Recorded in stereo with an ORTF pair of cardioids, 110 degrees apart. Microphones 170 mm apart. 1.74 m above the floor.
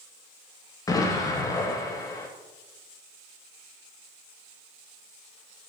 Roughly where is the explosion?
Ahead.